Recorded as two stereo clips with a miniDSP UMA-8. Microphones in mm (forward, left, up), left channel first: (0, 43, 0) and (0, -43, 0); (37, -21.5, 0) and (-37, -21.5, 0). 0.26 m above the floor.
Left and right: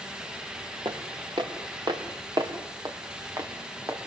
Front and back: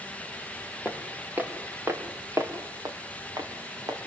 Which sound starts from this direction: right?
Footsteps, at 0.8 s.